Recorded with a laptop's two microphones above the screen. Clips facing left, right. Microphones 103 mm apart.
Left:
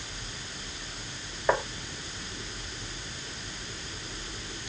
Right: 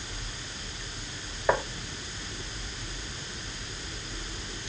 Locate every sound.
1.5 s tapping: centre (ahead or behind)